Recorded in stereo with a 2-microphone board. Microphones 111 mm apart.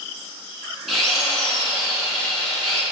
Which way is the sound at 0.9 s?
Centre (ahead or behind).